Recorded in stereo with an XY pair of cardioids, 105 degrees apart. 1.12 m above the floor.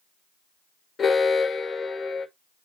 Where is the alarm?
40° left, 1.6 m.